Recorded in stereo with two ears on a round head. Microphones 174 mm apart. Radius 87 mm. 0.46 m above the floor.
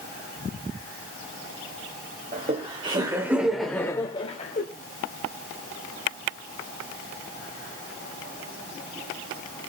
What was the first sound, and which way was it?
Laughter, 35° right (ahead or behind).